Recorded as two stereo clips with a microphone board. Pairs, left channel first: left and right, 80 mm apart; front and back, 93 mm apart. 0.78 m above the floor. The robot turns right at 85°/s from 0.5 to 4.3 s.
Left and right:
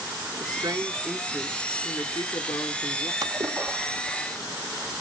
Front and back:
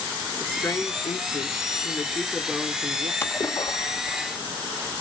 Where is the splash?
60° right, 1.0 m; by 4.9 s 35° left, 1.0 m.